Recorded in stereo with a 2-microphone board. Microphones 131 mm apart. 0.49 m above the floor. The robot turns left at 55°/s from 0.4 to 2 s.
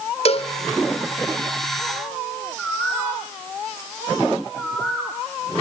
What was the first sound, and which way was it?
A cowbell, 50° left (ahead or behind).